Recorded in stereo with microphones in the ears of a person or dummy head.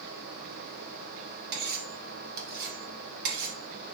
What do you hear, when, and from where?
1.5 s cutlery clinking: 60° right (ahead or behind), 1.7 m